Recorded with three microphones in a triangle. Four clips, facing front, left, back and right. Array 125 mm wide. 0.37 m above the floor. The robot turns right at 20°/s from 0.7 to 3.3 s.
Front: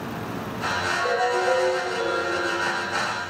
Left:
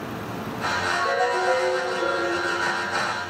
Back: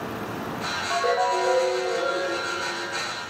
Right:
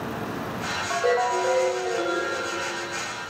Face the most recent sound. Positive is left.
turn(degrees=-80)